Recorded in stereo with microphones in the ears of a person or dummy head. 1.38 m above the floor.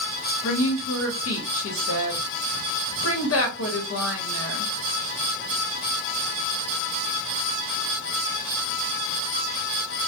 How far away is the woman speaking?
About 1.0 m.